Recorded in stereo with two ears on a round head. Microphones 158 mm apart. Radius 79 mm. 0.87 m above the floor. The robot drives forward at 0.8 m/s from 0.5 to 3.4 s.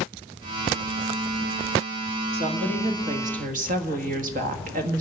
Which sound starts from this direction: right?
A woman speaking, at 2.3 s.